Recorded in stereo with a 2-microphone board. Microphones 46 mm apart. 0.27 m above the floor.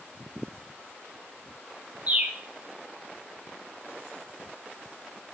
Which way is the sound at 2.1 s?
35° right (ahead or behind).